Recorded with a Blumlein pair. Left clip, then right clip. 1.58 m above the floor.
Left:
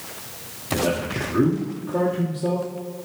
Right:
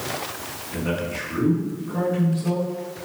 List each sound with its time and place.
0.7 s a man speaking: 35° left, 0.8 m